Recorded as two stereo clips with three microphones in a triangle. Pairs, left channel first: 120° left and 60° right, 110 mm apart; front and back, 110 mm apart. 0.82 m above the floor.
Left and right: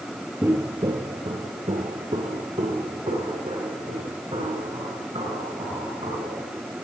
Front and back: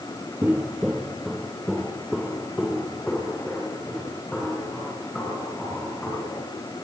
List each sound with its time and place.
0.4 s footsteps: 115° right, 0.9 m; by 6.4 s 80° right, 9 m